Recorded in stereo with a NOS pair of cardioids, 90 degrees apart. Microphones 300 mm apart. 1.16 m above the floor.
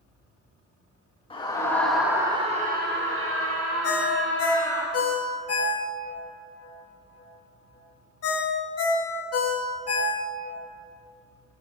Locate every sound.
1.3 s a scream: 20° left, 2.5 m; by 4.8 s 80° right, 3.5 m
3.8 s a ringtone: 50° left, 1.5 m